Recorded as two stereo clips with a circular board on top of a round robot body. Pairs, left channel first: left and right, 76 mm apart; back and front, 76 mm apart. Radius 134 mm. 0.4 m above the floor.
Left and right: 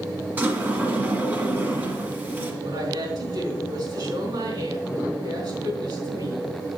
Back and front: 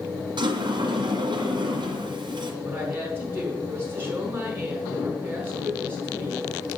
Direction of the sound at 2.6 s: 65° right.